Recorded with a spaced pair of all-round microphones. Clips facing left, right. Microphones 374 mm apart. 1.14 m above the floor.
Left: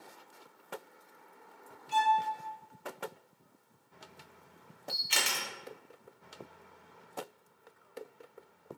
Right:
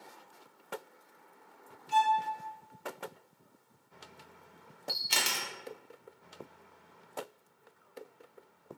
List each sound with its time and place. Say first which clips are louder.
1.9 s a violin: even; 65° right (ahead or behind), 1.6 m
4.9 s a camera shutter: even; 60° right (ahead or behind), 0.7 m